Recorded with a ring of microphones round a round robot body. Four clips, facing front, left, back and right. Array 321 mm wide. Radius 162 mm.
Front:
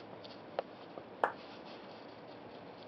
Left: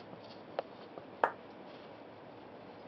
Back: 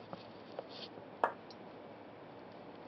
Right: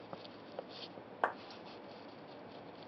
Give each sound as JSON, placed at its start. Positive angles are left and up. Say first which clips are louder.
{"t": 1.2, "sound": "a clap", "louder": "left 3 dB, even", "azimuth_deg": 80, "distance_m": 0.7}